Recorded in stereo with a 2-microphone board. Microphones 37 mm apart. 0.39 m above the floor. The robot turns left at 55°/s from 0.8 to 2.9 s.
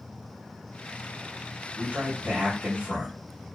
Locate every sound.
1.8 s a man speaking: 65° right, 1.7 m; by 3.2 s 130° right, 1.7 m